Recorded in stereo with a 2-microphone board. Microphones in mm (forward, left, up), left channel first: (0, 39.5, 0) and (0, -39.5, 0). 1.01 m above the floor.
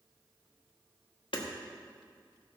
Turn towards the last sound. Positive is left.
turn(degrees=80)